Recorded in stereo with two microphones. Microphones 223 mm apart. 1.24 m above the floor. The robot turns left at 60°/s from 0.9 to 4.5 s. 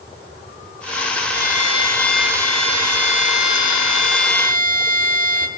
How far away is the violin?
About 5 m.